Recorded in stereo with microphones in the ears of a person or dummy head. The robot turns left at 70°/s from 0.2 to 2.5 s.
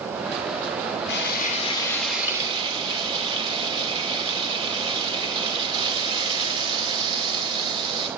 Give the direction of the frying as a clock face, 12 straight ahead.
10 o'clock.